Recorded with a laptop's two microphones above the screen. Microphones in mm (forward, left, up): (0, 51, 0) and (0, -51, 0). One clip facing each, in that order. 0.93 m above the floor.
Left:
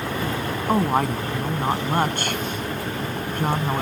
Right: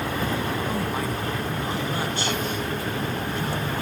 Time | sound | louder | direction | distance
0.7 | a woman speaking | left 6 dB | 55° left (ahead or behind) | ?